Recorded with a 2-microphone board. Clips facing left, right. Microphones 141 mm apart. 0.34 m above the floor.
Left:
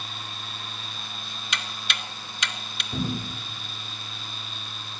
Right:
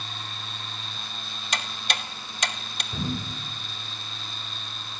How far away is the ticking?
About 0.7 m.